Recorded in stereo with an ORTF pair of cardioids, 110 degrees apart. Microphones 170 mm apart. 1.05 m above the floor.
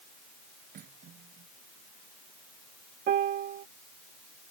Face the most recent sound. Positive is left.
turn(degrees=-55)